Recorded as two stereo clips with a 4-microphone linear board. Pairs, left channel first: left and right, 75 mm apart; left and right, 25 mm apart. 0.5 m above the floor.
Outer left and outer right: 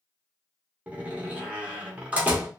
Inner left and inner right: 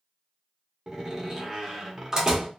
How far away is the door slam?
About 0.8 m.